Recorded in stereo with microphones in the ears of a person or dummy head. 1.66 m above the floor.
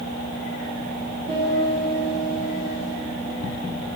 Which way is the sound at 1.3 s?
25° right (ahead or behind).